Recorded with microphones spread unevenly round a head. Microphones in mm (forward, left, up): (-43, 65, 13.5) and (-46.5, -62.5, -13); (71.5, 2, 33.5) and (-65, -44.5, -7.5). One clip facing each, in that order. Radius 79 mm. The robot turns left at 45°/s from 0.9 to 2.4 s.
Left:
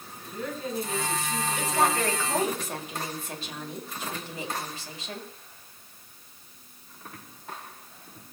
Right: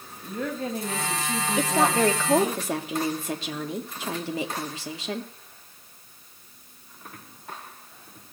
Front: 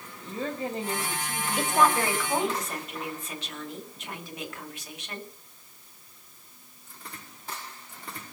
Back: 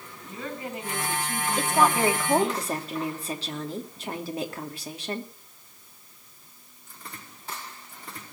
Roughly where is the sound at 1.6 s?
Ahead right.